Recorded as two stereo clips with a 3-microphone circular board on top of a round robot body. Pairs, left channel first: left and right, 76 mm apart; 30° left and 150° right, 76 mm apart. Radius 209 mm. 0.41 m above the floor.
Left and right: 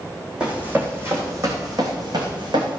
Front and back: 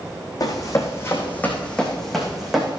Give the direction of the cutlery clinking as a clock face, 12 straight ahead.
No cutlery clinking in this recording.